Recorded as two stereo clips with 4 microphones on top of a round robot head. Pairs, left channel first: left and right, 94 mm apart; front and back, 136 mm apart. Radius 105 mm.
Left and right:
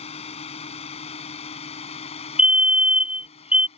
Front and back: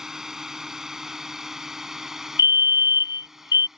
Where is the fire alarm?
20° right.